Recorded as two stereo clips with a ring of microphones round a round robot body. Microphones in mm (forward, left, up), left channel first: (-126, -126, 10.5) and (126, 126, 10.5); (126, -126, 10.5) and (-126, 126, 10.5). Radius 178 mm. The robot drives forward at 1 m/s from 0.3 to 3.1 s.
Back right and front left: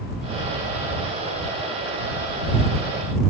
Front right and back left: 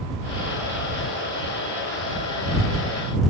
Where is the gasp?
No gasp in this recording.